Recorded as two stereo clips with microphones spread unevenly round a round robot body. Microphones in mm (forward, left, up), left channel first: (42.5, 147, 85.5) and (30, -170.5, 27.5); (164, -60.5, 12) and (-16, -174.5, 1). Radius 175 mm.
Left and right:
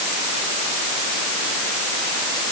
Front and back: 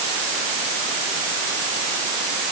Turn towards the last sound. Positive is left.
No sound to turn to.